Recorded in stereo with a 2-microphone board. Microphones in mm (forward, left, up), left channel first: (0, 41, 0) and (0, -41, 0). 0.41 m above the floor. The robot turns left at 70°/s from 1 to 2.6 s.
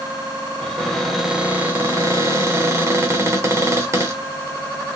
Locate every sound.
0.6 s a cupboard door: 5° left, 1.1 m; by 4.2 s 105° right, 1.1 m